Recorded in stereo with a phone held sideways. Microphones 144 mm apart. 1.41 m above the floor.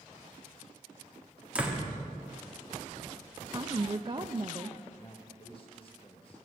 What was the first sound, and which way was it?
A door slam, 10° right (ahead or behind).